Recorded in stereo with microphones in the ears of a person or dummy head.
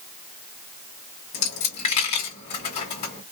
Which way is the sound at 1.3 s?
35° left (ahead or behind).